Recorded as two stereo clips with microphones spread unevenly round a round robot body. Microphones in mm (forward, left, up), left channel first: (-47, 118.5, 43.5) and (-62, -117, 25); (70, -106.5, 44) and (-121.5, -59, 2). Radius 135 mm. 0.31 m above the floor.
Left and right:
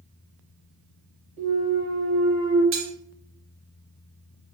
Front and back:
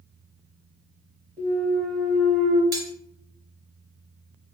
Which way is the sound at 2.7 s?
125° right.